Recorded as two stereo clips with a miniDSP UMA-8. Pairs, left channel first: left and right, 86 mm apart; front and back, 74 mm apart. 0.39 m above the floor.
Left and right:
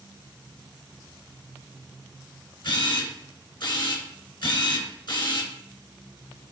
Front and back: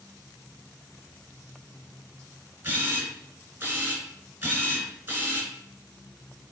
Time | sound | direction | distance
2.6 | a camera shutter | 120° left | 3.5 m